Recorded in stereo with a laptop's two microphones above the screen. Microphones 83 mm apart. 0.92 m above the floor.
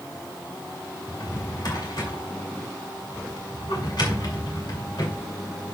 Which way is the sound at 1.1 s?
65° left (ahead or behind).